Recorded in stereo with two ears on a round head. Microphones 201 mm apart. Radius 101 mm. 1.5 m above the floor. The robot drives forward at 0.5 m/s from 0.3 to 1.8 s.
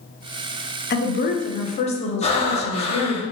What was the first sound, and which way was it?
A woman speaking, 45° left (ahead or behind).